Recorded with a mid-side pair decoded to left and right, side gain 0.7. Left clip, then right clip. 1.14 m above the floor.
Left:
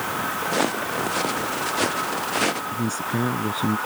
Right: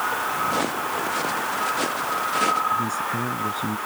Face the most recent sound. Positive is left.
turn(degrees=20)